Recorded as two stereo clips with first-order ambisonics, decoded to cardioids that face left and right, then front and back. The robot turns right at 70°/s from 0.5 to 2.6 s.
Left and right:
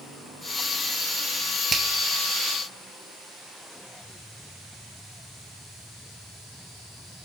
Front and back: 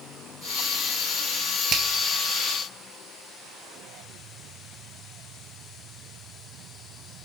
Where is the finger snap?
150° right, 1.1 m; by 1.9 s 140° right, 1.1 m.